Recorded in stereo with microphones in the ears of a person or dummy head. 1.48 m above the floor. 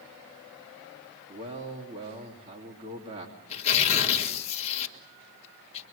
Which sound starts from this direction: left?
Tearing paper, at 3.5 s.